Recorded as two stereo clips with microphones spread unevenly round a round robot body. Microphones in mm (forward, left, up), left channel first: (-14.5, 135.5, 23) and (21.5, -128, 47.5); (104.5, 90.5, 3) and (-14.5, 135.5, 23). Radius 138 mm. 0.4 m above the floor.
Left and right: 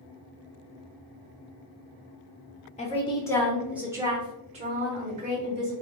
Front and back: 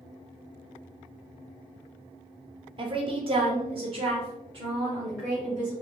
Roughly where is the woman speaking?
Behind left.